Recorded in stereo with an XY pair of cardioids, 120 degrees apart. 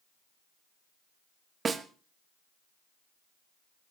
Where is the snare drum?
35° right, 1.2 m.